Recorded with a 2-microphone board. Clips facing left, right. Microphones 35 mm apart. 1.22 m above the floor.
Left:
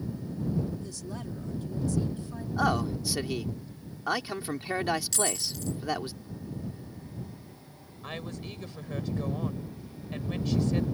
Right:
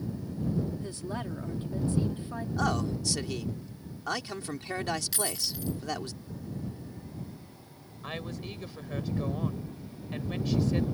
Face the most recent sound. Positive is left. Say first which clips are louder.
# right 1 dB
turn(degrees=-5)  # may be behind; listen again after turning